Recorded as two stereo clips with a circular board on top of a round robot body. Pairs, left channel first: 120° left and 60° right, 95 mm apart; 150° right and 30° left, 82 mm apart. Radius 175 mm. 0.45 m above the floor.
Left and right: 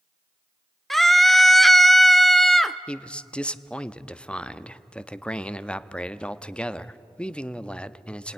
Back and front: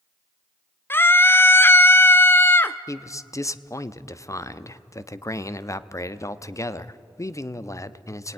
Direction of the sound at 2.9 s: 165° right.